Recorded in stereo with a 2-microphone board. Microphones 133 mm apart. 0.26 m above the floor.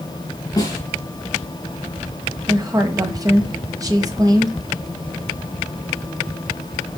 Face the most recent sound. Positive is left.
turn(degrees=-30)  # may be behind; listen again after turning